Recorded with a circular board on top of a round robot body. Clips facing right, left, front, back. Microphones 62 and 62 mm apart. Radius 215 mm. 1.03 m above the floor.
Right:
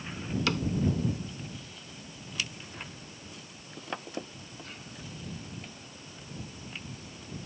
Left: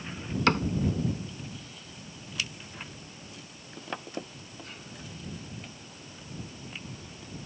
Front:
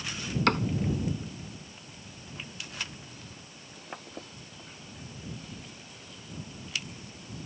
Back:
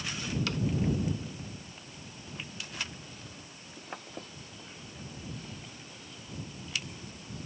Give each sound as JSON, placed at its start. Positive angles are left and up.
{"t": 0.5, "sound": "a cupboard door", "azimuth_deg": 40}